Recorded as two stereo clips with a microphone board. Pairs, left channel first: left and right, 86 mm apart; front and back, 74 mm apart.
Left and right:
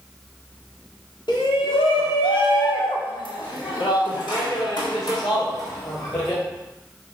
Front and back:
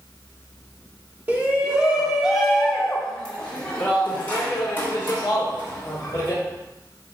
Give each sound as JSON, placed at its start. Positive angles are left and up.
{"t": 1.3, "sound": "a shout", "azimuth_deg": 115, "distance_m": 1.9}